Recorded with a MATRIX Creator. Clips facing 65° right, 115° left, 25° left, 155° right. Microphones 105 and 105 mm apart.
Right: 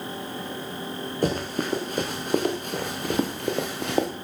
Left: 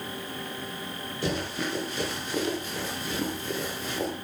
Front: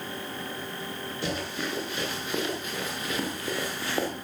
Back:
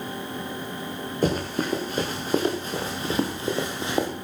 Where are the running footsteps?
110° right, 5.5 m; by 4.1 s 85° right, 3.5 m.